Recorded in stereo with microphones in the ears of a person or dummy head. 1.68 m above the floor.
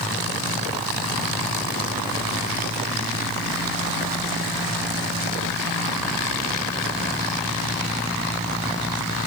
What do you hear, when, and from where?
Only background noise.